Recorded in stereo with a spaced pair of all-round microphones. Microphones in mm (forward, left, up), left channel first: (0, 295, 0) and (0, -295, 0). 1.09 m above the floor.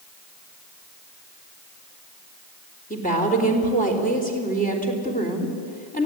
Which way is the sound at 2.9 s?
15° left (ahead or behind).